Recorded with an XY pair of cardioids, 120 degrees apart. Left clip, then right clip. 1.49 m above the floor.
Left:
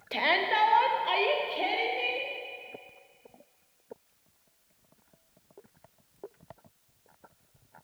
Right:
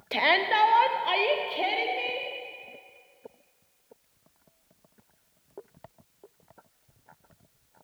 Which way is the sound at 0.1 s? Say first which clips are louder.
Right 3 dB; 20° right.